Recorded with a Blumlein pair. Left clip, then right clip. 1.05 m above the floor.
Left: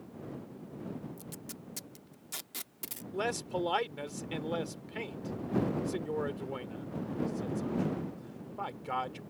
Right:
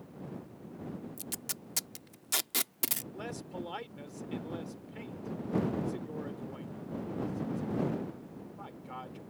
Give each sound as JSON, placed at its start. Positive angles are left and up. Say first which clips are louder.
{"t": 1.2, "sound": "tape being pulled", "louder": "right 5 dB", "azimuth_deg": -60}
{"t": 3.1, "sound": "a man speaking", "louder": "left 8 dB", "azimuth_deg": 65}